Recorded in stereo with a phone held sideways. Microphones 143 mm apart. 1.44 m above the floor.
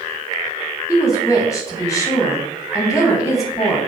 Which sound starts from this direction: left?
A woman speaking, at 0.9 s.